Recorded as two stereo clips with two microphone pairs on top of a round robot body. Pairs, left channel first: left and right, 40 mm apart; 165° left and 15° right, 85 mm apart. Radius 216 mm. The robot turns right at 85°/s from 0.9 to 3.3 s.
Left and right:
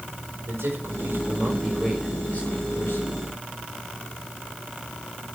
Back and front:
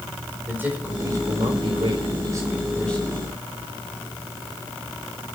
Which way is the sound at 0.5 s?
85° right.